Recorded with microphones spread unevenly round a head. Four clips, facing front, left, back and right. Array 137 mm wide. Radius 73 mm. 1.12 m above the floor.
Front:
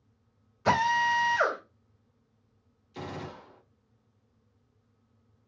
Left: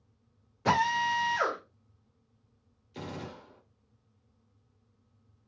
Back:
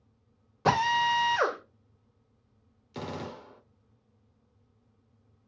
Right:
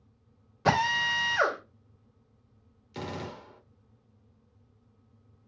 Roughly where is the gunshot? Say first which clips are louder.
Right 3 dB, back 2 dB; behind.